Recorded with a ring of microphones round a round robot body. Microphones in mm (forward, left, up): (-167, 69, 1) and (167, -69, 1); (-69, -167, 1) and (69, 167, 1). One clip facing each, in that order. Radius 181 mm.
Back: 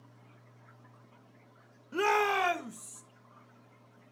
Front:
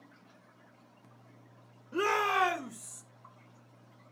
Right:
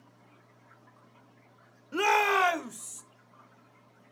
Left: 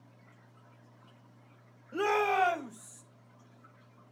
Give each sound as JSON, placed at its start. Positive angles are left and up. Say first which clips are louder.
{"t": 1.9, "sound": "a shout", "louder": "back 2 dB, right 1 dB", "azimuth_deg": -135, "distance_m": 0.9}